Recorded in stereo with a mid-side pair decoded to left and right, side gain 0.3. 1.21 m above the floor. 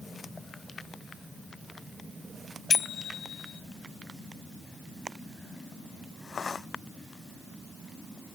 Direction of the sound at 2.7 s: 65° left.